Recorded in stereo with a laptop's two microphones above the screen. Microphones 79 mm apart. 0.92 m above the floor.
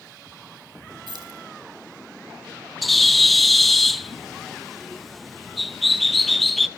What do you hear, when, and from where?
1.1 s keys jangling: 70° right (ahead or behind), 3.5 m
2.8 s a bird: centre (ahead or behind), 0.6 m